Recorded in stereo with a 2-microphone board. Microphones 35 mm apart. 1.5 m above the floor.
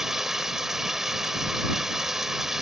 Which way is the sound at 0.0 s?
15° right (ahead or behind).